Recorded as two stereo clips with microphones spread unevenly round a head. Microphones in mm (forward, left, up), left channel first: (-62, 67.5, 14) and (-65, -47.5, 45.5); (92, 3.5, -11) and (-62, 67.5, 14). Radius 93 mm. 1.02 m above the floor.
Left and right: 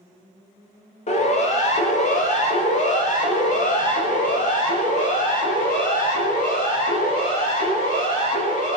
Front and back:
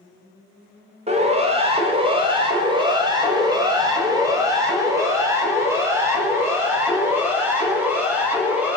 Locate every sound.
1.1 s a siren: 105° left, 5 m; by 8.8 s 75° left, 11.5 m